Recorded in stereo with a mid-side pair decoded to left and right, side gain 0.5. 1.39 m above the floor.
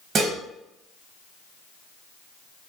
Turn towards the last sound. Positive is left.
turn(degrees=-55)